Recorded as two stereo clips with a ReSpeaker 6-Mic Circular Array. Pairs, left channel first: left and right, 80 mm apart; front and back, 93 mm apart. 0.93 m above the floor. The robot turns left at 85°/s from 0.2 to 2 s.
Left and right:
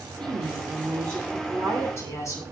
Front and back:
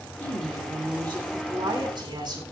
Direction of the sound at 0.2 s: 65° right.